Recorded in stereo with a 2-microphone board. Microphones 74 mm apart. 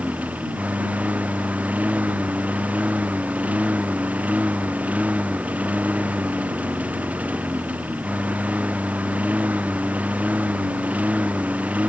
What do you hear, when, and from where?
0.0 s a lawn mower: 20° right (ahead or behind)